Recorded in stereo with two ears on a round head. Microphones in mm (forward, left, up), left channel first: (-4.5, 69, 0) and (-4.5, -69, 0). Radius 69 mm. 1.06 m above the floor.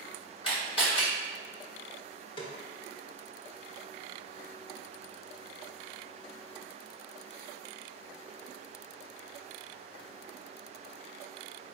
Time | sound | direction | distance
0.4 | a camera shutter | 40° left (ahead or behind) | 1.4 m
2.4 | a snare drum | 30° left (ahead or behind) | 0.8 m